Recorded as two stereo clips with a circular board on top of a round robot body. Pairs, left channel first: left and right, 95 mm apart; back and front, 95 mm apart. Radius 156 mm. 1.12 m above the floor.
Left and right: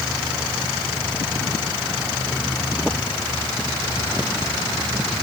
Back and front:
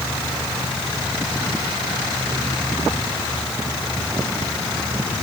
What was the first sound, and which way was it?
Only background noise.